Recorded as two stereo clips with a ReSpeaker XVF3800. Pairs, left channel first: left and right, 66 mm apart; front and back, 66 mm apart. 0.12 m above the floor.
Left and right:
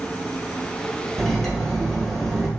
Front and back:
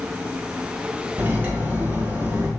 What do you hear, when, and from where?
1.2 s cutlery clinking: 165° left, 0.8 m